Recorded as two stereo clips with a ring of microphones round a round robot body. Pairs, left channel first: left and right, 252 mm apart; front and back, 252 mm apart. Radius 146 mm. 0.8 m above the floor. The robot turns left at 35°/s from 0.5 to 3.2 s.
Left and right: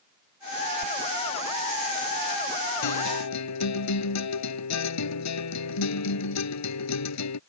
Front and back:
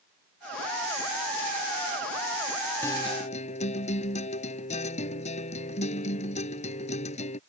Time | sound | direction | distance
2.8 | a guitar | 80° left | ?